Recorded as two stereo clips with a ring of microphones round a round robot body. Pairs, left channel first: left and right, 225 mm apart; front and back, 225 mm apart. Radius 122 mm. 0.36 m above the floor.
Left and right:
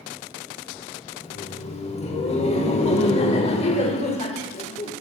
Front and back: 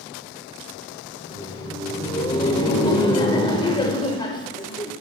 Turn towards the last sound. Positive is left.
turn(degrees=55)